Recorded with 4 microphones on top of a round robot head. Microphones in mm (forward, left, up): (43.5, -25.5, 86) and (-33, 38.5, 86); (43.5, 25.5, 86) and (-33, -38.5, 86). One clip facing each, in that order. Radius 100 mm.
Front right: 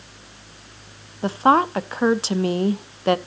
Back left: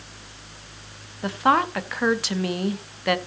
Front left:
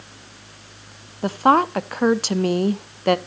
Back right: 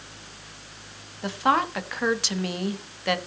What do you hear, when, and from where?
1.2 s a woman speaking: 10° left, 0.8 m